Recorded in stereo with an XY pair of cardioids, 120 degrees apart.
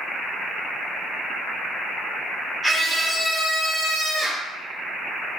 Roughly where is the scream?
Ahead.